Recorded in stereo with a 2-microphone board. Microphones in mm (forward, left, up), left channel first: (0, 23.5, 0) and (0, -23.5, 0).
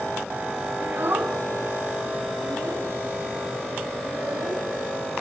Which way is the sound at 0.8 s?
55° right (ahead or behind).